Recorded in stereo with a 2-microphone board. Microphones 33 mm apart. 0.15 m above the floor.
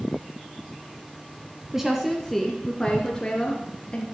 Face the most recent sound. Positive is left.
turn(degrees=35)  # may be behind; listen again after turning